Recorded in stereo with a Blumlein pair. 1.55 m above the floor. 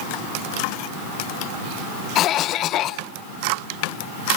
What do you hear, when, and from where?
2.1 s a cough: 35° left, 0.8 m